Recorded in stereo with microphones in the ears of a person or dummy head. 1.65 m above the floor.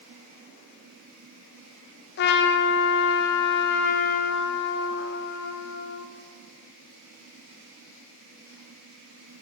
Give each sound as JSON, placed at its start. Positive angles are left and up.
{"t": 2.2, "sound": "a trumpet", "side_deg": 55, "distance_m": 0.7}